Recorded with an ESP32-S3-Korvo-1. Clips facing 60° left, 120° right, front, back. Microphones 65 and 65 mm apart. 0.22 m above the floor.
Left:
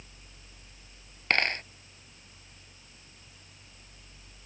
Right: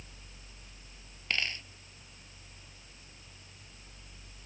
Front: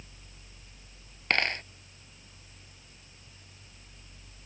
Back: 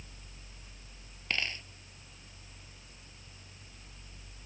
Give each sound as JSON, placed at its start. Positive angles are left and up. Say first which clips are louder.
{"t": 1.3, "sound": "a dropped coin", "louder": "left 8 dB, front 7 dB", "azimuth_deg": 25}